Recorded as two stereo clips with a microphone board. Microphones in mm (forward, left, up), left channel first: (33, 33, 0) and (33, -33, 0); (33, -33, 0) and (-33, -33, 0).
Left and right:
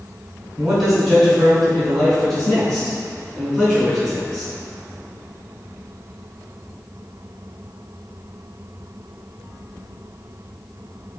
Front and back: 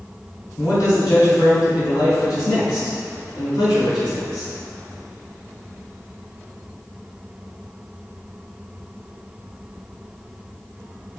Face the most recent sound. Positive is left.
turn(degrees=15)